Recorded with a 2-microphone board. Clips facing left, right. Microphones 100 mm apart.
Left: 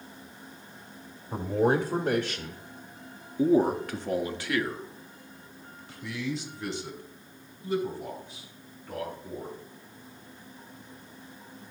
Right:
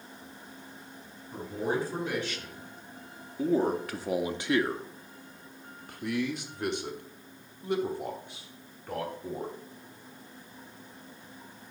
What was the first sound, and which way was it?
A man speaking, 65° left (ahead or behind).